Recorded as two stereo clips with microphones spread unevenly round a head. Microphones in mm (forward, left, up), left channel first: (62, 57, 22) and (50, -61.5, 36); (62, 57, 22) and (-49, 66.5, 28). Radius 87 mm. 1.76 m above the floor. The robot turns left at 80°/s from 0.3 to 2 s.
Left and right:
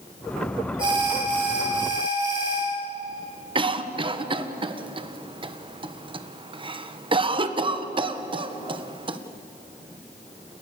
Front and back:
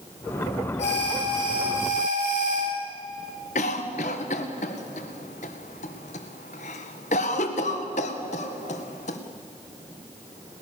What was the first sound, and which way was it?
An alarm, 45° right.